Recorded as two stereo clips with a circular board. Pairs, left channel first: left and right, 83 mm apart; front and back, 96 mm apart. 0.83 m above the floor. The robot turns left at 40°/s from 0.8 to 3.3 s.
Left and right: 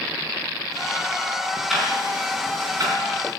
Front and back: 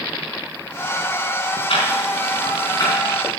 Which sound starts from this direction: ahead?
Ticking, at 1.7 s.